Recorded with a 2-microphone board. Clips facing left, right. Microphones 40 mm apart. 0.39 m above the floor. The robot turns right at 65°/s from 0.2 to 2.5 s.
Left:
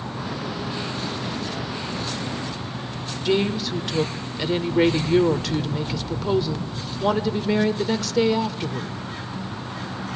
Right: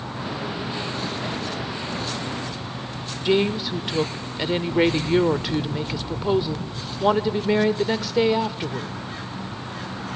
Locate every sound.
3.2 s a woman speaking: 15° right (ahead or behind), 0.8 m